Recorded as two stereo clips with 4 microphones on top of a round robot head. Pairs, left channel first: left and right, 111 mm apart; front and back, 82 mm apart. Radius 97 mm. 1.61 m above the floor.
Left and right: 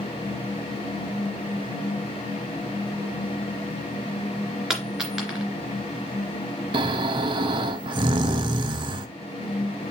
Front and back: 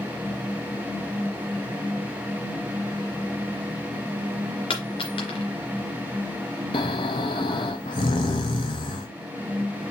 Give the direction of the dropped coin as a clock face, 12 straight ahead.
12 o'clock.